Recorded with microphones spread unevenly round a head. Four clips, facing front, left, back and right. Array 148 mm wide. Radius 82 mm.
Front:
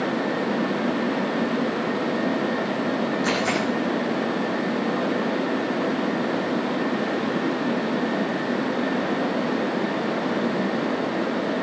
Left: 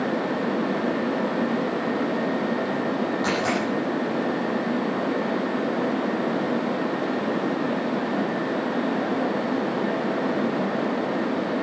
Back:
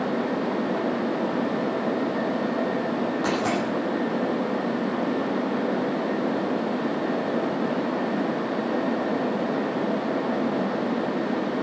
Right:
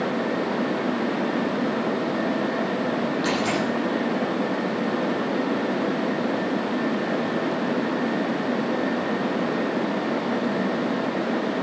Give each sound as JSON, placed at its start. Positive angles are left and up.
{"t": 3.2, "sound": "a dropped coin", "azimuth_deg": 160, "distance_m": 7.5}